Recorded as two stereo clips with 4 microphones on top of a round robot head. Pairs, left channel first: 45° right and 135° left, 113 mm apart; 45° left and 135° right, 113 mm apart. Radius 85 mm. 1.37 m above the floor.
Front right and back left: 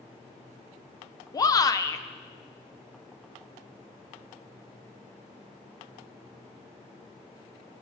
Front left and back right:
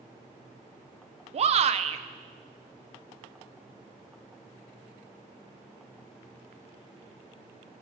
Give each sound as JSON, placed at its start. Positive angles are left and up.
{"t": 1.3, "sound": "a shout", "azimuth_deg": -105, "distance_m": 0.5}